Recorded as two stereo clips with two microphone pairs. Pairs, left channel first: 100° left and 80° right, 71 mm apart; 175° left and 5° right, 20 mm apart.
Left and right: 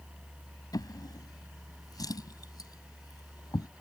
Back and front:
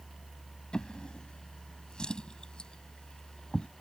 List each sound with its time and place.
0.7 s a drawer: 125° left